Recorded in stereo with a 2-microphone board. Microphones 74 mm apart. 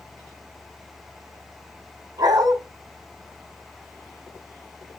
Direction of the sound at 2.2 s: 75° right (ahead or behind).